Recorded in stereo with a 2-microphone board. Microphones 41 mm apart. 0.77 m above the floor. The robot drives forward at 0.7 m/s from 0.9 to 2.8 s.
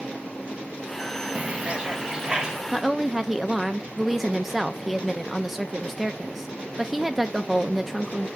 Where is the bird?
35° right (ahead or behind), 0.6 m; by 2.6 s 15° right (ahead or behind), 1.4 m.